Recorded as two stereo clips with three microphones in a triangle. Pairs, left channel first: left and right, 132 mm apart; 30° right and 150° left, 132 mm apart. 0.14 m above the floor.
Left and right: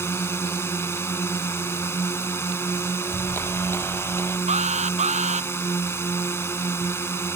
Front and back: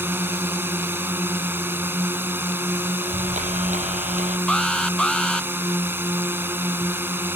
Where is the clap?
160° left.